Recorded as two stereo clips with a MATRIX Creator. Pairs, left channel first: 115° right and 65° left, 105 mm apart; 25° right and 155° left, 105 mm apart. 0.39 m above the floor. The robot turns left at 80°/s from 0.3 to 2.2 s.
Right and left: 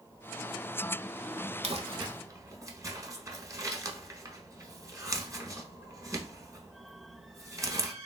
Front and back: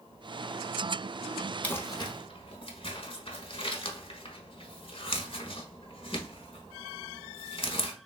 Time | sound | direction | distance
1.6 | crumpling | 55° left | 0.7 m